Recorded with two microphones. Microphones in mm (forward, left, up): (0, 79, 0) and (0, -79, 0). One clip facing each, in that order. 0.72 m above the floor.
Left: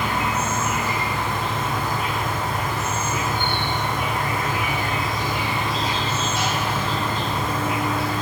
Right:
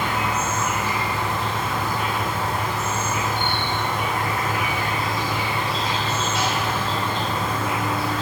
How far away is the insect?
About 1.0 m.